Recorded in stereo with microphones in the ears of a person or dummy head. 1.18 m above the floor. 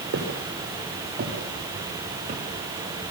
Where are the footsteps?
65° right (ahead or behind), 7.5 m; by 2.4 s 50° right (ahead or behind), 7 m.